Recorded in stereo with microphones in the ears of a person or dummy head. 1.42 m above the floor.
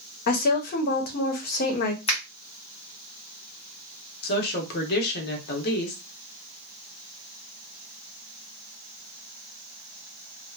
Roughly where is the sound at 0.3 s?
Left.